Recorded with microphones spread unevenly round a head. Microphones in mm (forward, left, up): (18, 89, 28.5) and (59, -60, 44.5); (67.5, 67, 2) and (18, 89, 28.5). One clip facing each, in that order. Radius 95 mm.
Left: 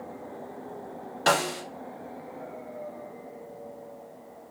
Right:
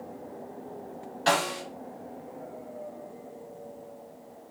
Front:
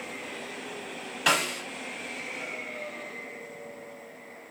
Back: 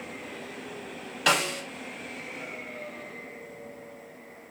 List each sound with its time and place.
1.3 s a snare drum: 75° left, 2 m